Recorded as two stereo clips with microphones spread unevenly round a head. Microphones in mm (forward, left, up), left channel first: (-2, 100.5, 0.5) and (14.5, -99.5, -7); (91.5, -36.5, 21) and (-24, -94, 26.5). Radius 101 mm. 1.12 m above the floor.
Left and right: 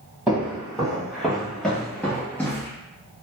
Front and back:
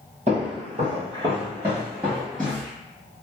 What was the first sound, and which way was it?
Footsteps, 170° right.